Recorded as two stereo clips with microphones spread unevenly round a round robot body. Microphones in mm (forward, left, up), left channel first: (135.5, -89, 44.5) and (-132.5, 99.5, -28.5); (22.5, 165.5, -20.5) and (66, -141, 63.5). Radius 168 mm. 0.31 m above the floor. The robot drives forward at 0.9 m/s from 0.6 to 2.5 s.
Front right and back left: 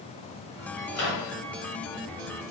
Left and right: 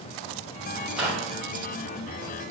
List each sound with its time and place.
0.9 s a microwave: 15° left, 1.5 m